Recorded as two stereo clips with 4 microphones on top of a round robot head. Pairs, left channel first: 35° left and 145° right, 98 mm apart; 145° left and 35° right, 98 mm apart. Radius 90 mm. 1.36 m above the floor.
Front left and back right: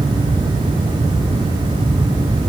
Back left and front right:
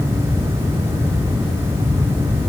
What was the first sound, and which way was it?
Only background noise.